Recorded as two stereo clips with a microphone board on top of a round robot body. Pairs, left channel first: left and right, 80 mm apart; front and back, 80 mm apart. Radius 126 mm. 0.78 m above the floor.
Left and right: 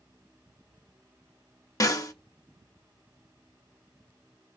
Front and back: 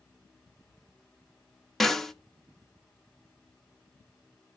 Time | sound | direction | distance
1.8 | a snare drum | 85° left | 1.2 m